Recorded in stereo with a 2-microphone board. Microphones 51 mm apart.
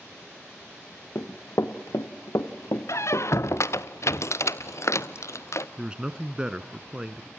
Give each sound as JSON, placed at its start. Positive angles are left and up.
{"t": 1.1, "sound": "running footsteps", "side_deg": 65, "distance_m": 1.8}
{"t": 2.9, "sound": "a squeak", "side_deg": 65, "distance_m": 1.0}
{"t": 5.8, "sound": "a man speaking", "side_deg": -20, "distance_m": 1.0}